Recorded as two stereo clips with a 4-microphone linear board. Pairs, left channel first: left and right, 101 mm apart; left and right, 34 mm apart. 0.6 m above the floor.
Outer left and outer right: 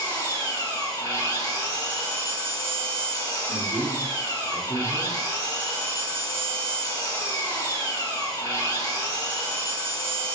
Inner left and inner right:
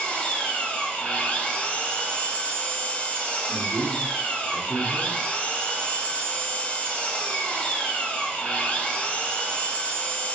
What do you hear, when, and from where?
0.0 s an engine running: 35° left (ahead or behind), 1.6 m
3.5 s a man speaking: 20° right (ahead or behind), 1.2 m